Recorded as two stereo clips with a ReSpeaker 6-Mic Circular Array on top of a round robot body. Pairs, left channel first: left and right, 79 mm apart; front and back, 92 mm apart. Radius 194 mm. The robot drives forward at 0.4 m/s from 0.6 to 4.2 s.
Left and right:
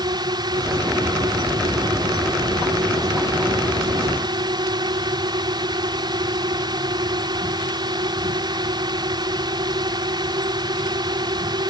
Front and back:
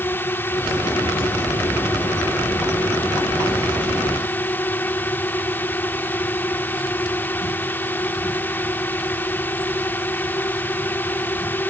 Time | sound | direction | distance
0.0 | a drone | 65° right | ?